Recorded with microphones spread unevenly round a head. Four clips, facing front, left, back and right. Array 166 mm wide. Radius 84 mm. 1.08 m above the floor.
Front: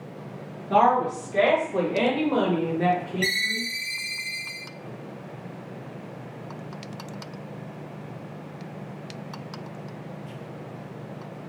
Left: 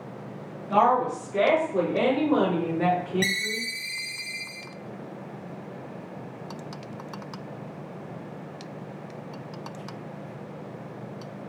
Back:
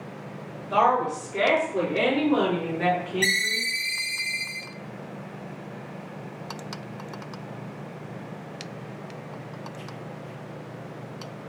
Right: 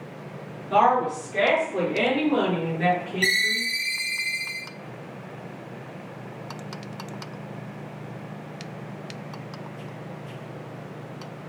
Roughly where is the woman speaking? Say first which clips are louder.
Right 1 dB, front 2 dB; ahead.